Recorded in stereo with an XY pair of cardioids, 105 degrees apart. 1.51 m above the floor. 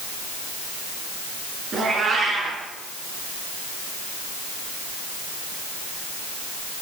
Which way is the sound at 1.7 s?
50° right.